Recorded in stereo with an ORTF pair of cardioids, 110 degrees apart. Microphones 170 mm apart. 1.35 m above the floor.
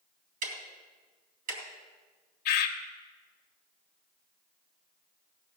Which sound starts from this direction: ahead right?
Ticking, at 0.4 s.